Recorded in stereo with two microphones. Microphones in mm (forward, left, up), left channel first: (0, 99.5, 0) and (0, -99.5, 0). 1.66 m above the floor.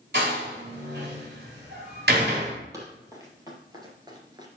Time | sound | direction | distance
0.1 | a door slam | 60° right (ahead or behind) | 3.5 m
2.7 | running footsteps | 15° right (ahead or behind) | 3 m